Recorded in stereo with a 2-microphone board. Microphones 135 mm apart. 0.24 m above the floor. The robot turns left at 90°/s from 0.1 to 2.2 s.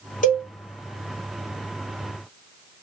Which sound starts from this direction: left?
A cowbell, at 0.2 s.